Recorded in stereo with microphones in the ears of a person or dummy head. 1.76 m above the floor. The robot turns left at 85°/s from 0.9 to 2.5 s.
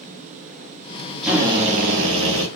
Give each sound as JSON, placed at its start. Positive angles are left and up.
{"t": 1.2, "sound": "a drill", "azimuth_deg": 0, "distance_m": 1.0}